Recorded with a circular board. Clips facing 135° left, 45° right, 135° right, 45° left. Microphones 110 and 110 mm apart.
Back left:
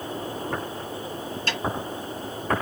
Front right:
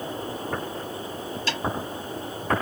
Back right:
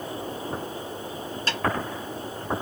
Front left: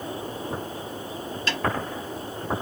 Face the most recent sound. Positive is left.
turn(degrees=170)